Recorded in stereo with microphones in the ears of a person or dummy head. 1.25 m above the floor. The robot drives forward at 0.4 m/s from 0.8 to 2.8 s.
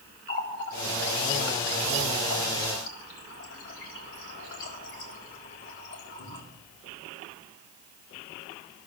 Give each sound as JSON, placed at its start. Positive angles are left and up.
{"t": 0.3, "sound": "a running tap", "side_deg": 60, "distance_m": 4.0}